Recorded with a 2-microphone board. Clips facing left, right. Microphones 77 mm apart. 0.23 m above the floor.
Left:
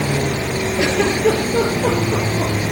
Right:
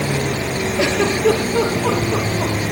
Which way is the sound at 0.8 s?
45° left (ahead or behind).